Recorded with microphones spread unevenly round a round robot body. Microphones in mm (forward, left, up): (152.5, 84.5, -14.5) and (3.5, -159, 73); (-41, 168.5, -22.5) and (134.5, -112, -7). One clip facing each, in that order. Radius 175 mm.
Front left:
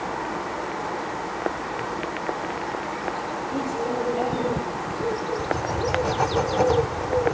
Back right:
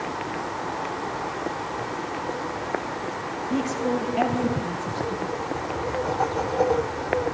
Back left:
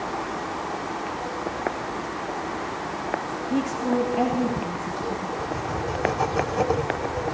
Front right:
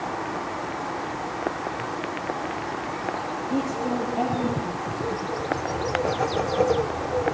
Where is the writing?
45° left, 1.1 m.